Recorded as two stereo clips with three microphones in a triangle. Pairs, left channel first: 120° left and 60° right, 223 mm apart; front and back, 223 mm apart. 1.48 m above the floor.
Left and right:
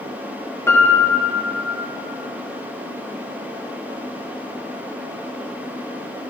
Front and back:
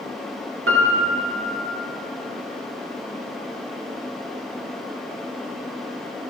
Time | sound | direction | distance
0.7 | a piano | 165° right | 0.7 m